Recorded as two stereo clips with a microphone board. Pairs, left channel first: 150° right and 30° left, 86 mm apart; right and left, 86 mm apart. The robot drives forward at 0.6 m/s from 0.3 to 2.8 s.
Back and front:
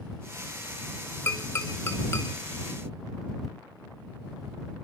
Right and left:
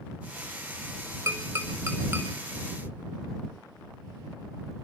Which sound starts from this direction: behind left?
Tapping, at 1.3 s.